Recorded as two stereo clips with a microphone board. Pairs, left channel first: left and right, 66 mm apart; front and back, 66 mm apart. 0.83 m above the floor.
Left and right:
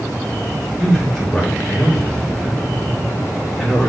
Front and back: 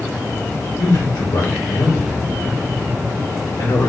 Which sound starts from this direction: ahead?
A man speaking, at 0.8 s.